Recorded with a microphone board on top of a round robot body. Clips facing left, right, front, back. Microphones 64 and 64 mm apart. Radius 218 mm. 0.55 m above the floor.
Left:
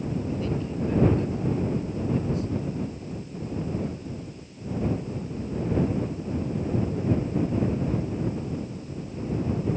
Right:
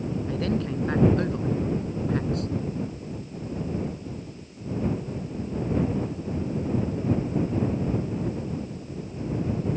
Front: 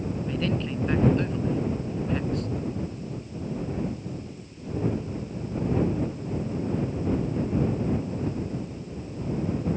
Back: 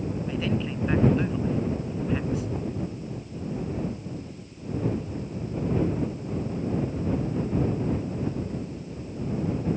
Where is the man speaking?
95° right.